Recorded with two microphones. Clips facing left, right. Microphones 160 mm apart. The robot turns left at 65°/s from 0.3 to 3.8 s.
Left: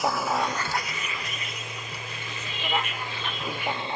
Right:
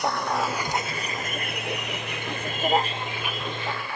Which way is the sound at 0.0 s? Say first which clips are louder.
Even; centre (ahead or behind).